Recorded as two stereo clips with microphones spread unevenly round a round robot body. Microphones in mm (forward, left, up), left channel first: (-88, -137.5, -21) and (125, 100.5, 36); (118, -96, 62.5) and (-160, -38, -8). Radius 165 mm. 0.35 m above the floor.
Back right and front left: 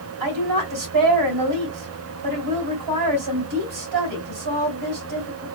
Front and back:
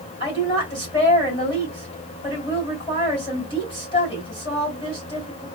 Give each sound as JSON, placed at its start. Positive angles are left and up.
{"t": 0.2, "sound": "a woman speaking", "azimuth_deg": 70, "distance_m": 2.0}